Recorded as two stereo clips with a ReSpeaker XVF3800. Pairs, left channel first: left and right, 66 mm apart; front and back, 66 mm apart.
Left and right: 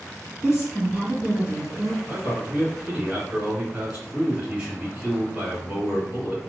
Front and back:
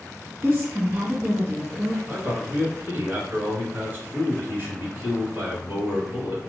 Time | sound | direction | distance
0.4 | a woman speaking | 155° right | 1.8 m
2.0 | a man speaking | 150° right | 1.5 m